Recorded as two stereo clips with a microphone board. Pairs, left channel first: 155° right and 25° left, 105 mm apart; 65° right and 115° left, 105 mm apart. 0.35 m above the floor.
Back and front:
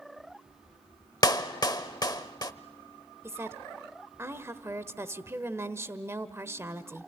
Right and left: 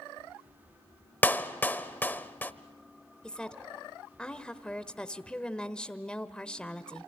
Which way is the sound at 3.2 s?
Straight ahead.